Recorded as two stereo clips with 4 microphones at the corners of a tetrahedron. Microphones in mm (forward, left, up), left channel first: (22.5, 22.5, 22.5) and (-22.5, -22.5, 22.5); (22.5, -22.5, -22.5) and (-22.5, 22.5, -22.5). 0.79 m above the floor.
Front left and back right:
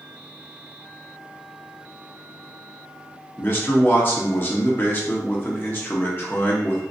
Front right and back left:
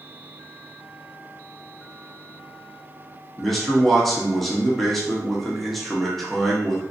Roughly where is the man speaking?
Ahead left.